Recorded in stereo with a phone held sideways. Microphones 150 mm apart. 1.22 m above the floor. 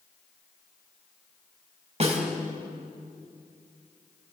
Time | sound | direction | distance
2.0 | a snare drum | 45° right (ahead or behind) | 4 m